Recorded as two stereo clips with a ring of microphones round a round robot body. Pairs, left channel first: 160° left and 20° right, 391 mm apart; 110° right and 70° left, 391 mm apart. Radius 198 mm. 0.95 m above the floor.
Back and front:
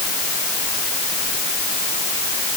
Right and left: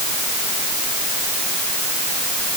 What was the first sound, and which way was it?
Only background noise.